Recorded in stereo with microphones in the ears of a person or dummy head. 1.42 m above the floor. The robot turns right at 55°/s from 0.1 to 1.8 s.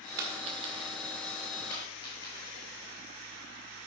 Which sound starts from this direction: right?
A dropped coin, at 0.2 s.